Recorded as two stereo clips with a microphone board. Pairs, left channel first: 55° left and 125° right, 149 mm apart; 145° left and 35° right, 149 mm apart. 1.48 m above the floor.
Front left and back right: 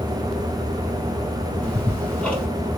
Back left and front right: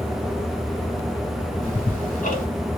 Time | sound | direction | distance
1.6 | ticking | 135° left | 1.6 m